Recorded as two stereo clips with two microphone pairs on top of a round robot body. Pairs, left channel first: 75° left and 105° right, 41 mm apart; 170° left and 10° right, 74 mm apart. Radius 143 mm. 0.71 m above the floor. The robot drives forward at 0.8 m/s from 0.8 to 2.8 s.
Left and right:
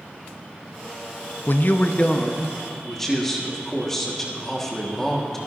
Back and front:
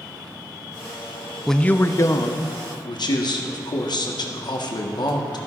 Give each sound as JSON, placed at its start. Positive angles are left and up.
{"t": 1.5, "sound": "a man speaking", "azimuth_deg": 85, "distance_m": 0.6}